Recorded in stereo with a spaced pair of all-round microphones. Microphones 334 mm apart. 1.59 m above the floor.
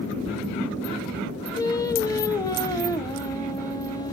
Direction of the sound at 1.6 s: 10° left (ahead or behind).